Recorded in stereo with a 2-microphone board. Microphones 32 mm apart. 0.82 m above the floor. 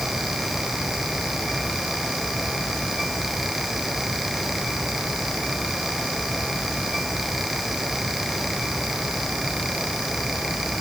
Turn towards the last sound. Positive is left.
No sound to turn to.